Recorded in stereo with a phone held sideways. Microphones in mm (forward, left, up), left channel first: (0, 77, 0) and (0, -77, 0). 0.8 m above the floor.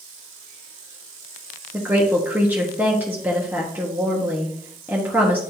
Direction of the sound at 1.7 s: 10° right (ahead or behind).